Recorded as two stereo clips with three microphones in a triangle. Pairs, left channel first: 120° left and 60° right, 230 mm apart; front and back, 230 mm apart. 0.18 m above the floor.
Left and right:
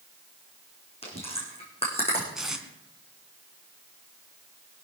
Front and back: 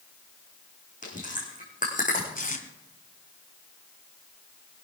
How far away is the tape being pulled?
About 2 m.